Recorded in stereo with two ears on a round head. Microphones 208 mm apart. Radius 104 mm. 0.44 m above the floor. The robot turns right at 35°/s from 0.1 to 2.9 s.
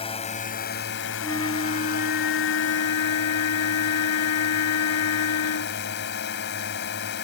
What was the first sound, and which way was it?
A drone, 25° left.